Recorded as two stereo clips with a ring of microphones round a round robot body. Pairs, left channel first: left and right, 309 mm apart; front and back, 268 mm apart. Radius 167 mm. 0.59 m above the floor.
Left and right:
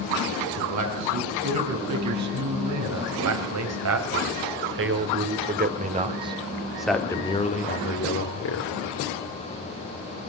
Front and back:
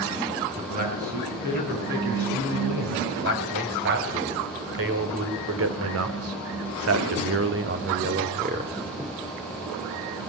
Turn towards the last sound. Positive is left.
turn(degrees=120)